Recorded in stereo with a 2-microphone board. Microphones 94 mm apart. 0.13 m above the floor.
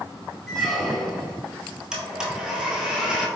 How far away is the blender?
About 0.9 m.